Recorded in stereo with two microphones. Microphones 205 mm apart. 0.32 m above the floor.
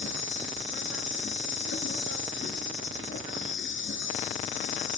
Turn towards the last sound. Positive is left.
turn(degrees=65)  # may be behind; listen again after turning